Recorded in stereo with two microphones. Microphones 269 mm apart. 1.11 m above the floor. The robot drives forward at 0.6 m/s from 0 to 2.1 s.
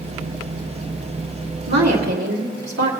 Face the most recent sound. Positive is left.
turn(degrees=-75)  # may be behind; listen again after turning